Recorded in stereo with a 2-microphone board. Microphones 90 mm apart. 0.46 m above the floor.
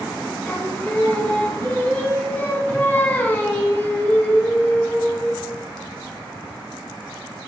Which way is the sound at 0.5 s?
20° left (ahead or behind).